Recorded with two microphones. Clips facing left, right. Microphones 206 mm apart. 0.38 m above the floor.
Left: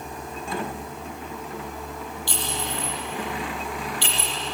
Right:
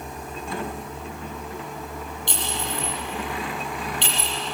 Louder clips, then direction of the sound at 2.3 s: Right 1 dB; 20° right (ahead or behind).